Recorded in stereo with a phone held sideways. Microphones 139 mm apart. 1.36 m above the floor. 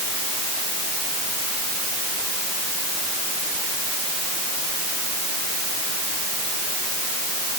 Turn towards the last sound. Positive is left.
No sound to turn to.